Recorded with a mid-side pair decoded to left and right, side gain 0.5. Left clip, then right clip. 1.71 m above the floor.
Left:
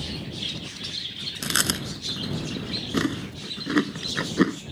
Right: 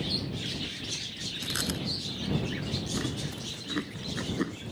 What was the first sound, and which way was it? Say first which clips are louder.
Chewing: left 8 dB; 60° left.